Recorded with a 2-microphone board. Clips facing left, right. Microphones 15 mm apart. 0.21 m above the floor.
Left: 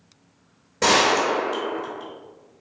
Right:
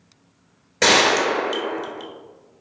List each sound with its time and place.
0.8 s a gunshot: 60° right (ahead or behind), 0.7 m